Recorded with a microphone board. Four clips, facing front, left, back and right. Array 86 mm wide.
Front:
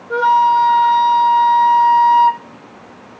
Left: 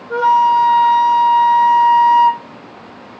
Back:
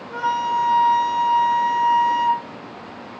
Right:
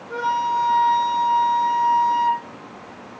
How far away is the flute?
About 0.6 m.